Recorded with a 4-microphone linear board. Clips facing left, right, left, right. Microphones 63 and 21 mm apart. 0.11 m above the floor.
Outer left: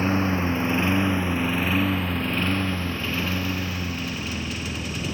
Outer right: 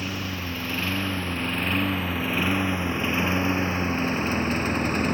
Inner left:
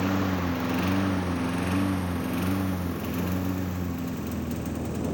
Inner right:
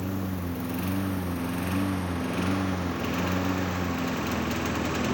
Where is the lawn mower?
35° left (ahead or behind); by 5.2 s 45° right (ahead or behind).